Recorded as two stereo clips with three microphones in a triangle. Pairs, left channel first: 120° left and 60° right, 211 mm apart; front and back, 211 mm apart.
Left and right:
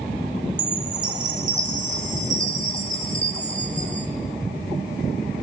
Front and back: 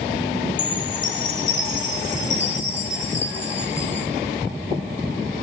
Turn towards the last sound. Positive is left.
turn(degrees=-10)